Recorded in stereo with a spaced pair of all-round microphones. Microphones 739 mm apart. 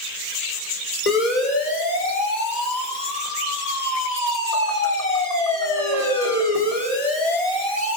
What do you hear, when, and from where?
1.1 s a siren: 75° left (ahead or behind), 8 m; by 8.0 s 40° left (ahead or behind), 5.5 m